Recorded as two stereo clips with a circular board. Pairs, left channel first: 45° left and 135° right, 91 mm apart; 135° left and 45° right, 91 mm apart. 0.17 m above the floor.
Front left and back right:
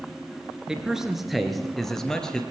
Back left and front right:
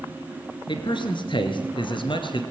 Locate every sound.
0.7 s a man speaking: 145° left, 2.5 m; by 2.4 s 125° left, 3 m